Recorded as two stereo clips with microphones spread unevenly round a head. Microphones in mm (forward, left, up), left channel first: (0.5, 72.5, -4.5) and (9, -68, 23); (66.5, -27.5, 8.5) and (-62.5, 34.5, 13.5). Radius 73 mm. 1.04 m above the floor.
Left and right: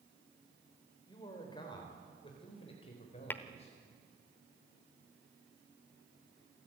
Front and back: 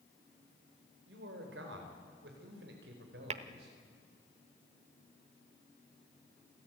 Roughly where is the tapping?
Behind.